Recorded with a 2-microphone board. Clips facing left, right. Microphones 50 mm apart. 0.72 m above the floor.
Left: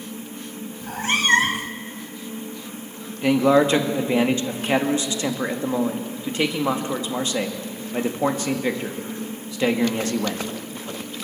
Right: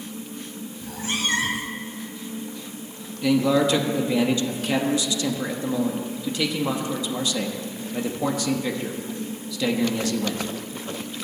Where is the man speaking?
35° left (ahead or behind), 1.2 m.